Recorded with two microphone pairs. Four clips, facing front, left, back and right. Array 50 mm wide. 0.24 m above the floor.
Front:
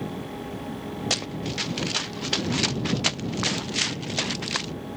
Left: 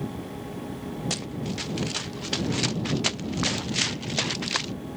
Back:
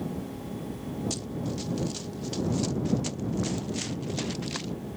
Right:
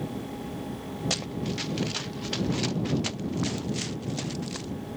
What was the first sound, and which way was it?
Running footsteps, 5° right.